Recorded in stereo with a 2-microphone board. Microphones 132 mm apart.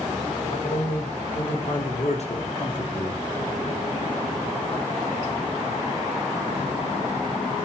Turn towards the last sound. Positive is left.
turn(degrees=10)  # may be behind; listen again after turning